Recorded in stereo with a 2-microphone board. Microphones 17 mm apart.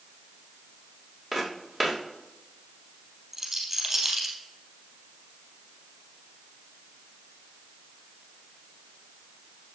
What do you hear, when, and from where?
1.3 s footsteps: 15° left (ahead or behind), 4.5 m
3.3 s a rattle: 10° right (ahead or behind), 3 m